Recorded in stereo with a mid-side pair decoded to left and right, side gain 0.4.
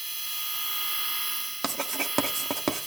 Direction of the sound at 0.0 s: 20° right.